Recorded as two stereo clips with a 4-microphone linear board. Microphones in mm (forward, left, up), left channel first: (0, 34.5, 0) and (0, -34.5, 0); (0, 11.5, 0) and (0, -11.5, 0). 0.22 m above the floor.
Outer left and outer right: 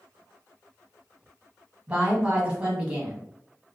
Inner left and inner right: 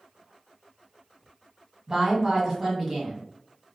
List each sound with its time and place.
1.9 s a woman speaking: 15° right (ahead or behind), 1.3 m